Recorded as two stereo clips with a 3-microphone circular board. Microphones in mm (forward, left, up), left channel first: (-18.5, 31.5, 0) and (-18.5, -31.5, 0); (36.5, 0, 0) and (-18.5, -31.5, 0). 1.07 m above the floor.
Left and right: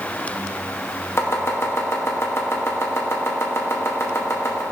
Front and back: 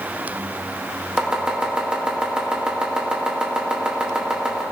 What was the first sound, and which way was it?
Chopping, 135° left.